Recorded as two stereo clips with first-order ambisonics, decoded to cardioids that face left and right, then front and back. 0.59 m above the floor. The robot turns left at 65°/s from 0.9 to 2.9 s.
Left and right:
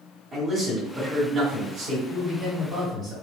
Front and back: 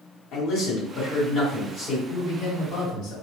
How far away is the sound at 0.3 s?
About 1.6 m.